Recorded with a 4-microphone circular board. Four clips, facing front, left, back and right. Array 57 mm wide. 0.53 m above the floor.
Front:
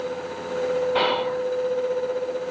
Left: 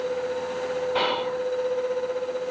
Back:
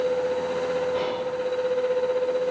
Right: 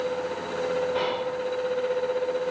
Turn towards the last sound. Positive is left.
turn(degrees=20)